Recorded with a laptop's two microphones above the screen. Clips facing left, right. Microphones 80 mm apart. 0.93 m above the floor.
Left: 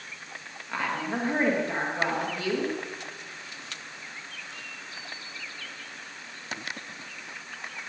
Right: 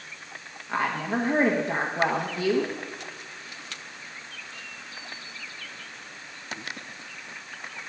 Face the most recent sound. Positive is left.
turn(degrees=-15)  # may be behind; listen again after turning